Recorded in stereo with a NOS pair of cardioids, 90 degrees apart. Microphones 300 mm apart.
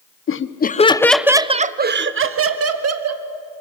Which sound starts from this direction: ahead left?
Laughter, at 0.3 s.